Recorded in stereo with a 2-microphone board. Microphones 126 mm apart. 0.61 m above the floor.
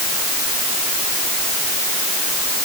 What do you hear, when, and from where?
Only background noise.